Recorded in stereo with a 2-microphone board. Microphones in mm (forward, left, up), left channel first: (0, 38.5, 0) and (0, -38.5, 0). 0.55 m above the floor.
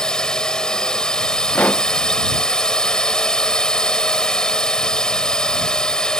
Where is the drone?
10° left (ahead or behind).